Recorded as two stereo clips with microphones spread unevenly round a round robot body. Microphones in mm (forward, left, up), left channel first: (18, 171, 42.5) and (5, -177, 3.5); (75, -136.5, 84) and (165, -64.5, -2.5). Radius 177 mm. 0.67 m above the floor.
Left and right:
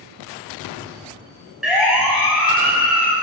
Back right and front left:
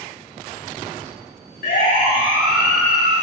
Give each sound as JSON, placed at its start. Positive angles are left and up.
{"t": 1.6, "sound": "a siren", "azimuth_deg": 180, "distance_m": 7.5}